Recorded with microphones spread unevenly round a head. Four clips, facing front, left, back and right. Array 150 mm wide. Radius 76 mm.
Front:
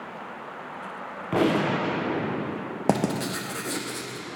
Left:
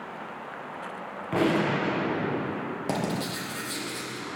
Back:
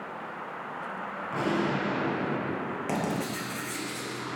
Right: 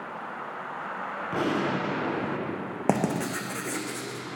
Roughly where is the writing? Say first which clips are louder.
Right 5 dB, front 7 dB; ahead right.